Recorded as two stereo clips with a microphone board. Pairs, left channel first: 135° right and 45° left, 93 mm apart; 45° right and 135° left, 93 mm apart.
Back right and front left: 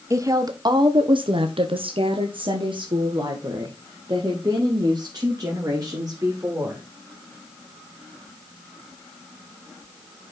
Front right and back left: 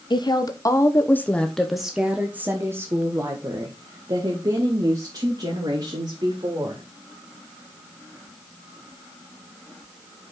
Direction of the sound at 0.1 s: 10° right.